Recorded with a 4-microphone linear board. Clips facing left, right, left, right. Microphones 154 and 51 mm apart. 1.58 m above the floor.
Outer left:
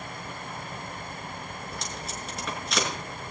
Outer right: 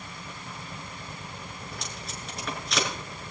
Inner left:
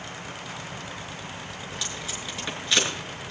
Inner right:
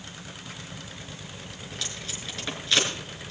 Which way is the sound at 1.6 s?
Centre (ahead or behind).